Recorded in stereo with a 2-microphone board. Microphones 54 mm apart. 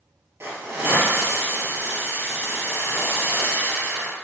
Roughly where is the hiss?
Right.